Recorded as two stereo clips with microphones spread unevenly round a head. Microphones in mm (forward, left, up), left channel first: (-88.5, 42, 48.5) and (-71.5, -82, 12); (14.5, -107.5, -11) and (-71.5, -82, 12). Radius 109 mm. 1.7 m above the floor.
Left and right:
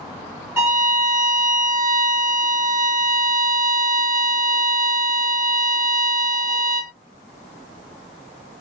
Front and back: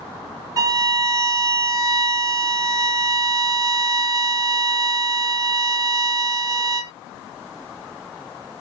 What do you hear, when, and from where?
0.6 s a violin: 165° right, 1.3 m